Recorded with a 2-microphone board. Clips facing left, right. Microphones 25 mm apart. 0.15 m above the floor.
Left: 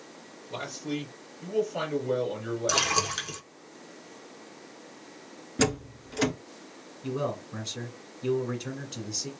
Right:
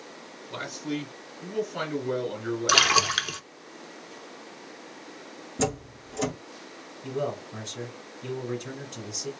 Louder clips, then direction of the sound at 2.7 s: Right 7 dB; 45° right (ahead or behind).